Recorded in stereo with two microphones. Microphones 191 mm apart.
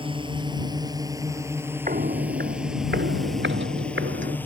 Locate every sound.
0.0 s a drone: 25° right (ahead or behind); by 4.5 s 10° left (ahead or behind)
1.9 s footsteps: 45° right (ahead or behind); by 4.4 s 80° right